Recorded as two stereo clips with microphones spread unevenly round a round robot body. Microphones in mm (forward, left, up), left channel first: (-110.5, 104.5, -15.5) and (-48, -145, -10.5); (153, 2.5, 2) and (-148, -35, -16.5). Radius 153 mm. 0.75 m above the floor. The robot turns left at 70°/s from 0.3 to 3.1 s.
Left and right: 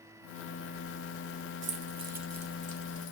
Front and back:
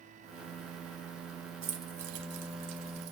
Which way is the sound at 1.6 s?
120° right.